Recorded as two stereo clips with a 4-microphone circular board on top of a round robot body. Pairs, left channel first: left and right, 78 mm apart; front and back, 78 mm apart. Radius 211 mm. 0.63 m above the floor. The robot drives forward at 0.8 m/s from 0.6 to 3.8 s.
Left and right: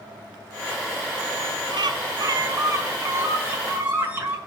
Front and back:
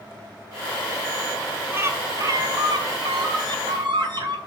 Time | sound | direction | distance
1.7 | a bird | 115° right | 1.0 m